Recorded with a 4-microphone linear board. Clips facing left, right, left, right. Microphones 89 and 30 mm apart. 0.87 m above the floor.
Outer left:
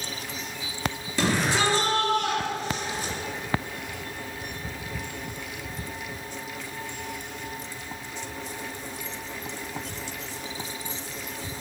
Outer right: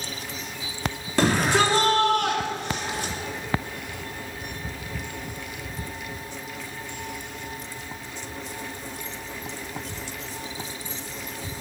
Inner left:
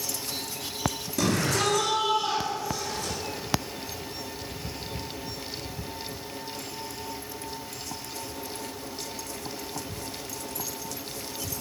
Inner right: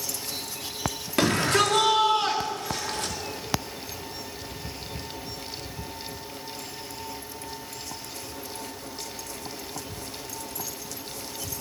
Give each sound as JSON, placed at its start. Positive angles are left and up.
{"t": 1.2, "sound": "a shout", "side_deg": -50, "distance_m": 2.5}